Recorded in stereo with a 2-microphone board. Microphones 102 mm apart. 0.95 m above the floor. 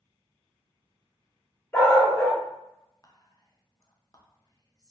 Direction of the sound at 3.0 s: 35° left (ahead or behind).